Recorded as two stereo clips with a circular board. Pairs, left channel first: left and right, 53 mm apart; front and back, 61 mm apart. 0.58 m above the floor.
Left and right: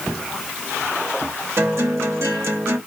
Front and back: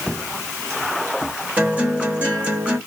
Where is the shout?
I don't hear a shout.